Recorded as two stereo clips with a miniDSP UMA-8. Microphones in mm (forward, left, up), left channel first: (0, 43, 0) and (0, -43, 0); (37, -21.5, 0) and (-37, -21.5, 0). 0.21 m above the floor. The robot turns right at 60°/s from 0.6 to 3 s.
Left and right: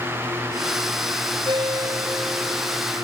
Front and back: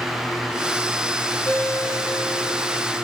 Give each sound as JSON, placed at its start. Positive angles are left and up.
{"t": 1.4, "sound": "a ringtone", "azimuth_deg": -65, "distance_m": 3.0}